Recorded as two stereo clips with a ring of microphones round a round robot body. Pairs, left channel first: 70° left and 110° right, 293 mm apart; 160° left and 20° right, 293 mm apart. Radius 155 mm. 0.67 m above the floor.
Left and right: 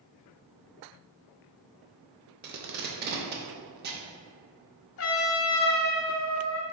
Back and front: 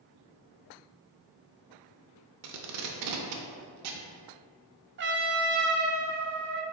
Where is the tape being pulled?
55° right, 0.5 m.